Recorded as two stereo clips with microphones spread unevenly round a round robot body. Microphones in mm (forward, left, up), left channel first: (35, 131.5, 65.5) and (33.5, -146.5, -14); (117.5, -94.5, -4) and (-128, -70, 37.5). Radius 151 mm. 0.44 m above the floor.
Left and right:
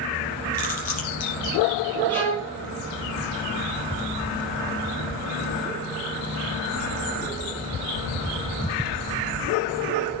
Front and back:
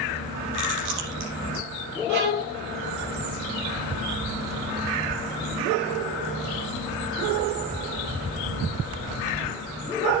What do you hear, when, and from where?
0.5 s chewing: 155° left, 4.5 m
2.1 s a violin: 175° left, 4 m